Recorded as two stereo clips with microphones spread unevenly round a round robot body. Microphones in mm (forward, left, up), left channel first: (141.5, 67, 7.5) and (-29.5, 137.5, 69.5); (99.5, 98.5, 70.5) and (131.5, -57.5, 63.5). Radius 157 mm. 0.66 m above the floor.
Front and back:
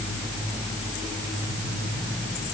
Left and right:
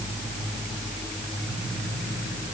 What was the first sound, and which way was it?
Only background noise.